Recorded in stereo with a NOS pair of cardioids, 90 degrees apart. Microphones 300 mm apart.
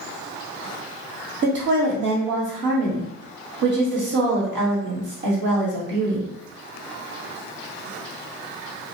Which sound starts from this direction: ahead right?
A woman speaking, at 1.4 s.